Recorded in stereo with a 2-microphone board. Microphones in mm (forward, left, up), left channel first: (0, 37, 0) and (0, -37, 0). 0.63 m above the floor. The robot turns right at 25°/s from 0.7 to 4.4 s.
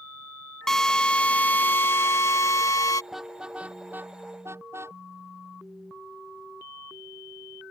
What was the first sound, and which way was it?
A drill, 10° left.